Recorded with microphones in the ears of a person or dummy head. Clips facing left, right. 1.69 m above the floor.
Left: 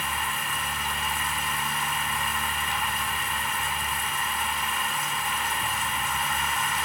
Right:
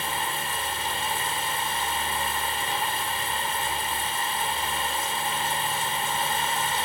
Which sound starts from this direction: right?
Running water, at 0.0 s.